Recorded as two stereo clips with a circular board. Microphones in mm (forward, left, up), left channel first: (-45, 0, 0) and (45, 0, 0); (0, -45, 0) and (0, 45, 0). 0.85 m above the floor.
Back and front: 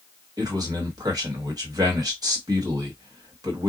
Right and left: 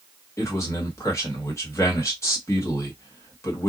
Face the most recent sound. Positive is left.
turn(degrees=-35)